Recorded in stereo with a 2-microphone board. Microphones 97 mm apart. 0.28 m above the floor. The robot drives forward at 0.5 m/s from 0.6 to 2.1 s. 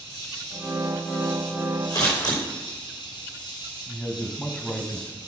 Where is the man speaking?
10° left (ahead or behind), 1.5 m.